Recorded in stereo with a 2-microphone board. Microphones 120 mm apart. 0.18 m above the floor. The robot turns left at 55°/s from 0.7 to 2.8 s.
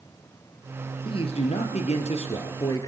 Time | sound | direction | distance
1.1 | a man speaking | 130° left | 3 m